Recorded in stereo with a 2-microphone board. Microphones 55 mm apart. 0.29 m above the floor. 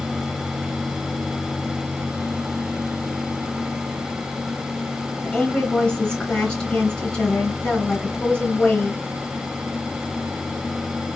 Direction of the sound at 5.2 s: 15° left (ahead or behind).